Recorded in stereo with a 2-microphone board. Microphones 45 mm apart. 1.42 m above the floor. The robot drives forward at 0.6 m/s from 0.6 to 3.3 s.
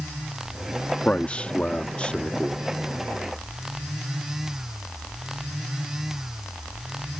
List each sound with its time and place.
1.1 s a man speaking: 35° left (ahead or behind); by 2.6 s 25° left (ahead or behind)